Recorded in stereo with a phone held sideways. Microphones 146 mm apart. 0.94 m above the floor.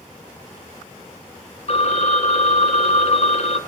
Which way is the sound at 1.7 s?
50° left (ahead or behind).